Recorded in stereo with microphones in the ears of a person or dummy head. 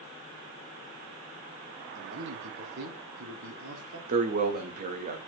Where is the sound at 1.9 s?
70° right (ahead or behind), 1.1 m.